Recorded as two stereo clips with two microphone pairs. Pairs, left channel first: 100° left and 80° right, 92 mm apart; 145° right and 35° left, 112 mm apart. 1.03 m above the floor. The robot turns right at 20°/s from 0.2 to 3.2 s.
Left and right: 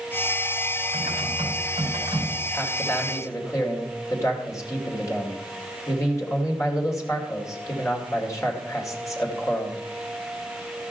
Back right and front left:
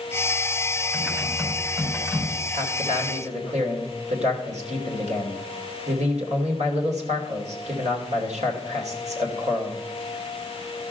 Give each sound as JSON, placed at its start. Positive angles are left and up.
{"t": 0.9, "sound": "typing on a keyboard", "azimuth_deg": -45, "distance_m": 4.5}
{"t": 2.5, "sound": "a man speaking", "azimuth_deg": 30, "distance_m": 2.5}